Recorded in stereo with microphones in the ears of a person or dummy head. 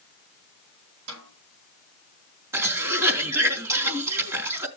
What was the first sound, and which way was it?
A snare drum, 90° right.